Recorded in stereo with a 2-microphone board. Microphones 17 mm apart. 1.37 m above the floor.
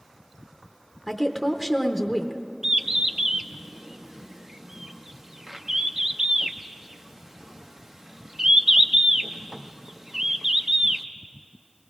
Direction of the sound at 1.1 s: 5° right (ahead or behind).